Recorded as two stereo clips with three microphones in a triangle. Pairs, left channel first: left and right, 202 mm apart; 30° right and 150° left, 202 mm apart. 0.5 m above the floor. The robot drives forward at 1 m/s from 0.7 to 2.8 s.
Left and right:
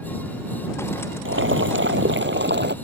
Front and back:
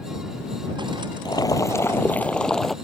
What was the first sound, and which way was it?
Boiling, 100° right.